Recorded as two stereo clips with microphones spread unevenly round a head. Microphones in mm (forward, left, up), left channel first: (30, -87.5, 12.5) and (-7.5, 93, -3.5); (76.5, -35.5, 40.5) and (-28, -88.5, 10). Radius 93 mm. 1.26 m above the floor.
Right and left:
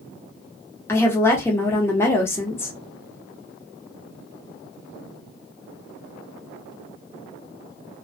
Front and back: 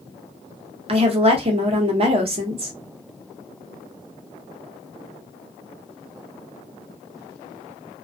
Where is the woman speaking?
160° right, 0.8 m.